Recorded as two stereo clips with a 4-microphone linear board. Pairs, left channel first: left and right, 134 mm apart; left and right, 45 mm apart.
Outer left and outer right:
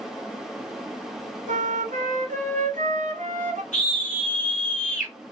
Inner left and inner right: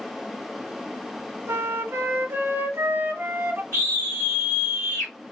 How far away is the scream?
About 1.6 m.